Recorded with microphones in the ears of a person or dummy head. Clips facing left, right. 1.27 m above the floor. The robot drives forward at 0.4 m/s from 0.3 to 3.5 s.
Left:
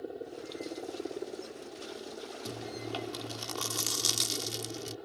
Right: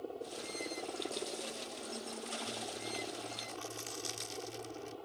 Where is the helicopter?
20° left (ahead or behind).